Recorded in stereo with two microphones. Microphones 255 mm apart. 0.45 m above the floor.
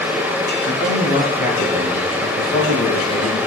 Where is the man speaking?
35° left (ahead or behind), 7 m.